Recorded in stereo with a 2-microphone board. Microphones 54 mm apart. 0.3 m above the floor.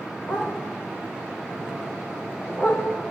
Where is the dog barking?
55° left (ahead or behind), 7.5 m; by 2.8 s 50° left (ahead or behind), 8.5 m.